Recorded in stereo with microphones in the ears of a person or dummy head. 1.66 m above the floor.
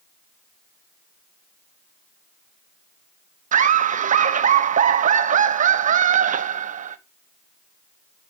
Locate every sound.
3.5 s laughter: 45° right (ahead or behind), 1.2 m